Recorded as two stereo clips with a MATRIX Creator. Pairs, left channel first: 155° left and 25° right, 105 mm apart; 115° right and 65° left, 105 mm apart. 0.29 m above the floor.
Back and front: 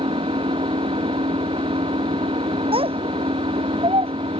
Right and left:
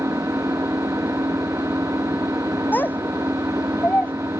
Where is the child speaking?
40° right.